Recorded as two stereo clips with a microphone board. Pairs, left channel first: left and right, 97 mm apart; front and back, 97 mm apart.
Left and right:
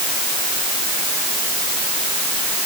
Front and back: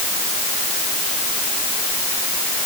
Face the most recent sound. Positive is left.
No sound to turn to.